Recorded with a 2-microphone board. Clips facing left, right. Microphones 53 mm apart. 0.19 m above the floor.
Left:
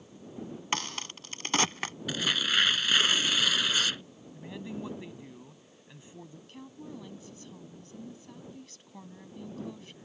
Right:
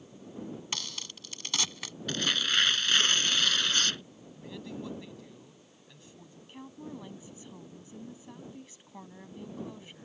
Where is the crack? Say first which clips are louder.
Left 6 dB; 40° left (ahead or behind).